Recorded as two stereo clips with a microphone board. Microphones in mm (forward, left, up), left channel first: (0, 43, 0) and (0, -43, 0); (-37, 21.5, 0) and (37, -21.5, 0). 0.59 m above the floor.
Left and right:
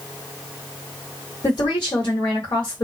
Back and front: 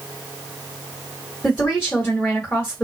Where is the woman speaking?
70° left, 1.9 m.